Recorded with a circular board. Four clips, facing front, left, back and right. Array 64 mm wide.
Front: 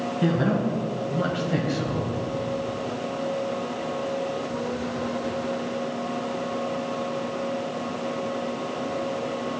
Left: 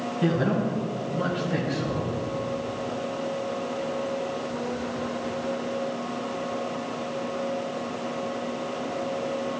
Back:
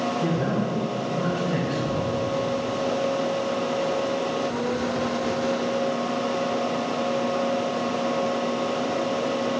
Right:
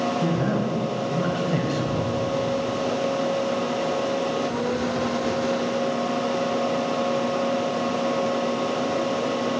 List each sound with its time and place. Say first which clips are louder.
0.2 s a man speaking: right 1 dB, front 1 dB; 20° left, 2 m; by 2.1 s 85° right, 1.5 m